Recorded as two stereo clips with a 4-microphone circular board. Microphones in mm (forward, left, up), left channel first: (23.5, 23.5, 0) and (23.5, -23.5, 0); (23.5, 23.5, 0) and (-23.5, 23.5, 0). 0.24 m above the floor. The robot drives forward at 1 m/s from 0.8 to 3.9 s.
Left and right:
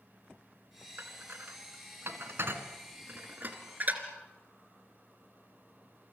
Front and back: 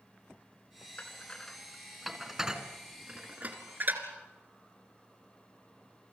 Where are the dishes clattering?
60° right, 2 m; by 4.0 s 140° right, 2.5 m.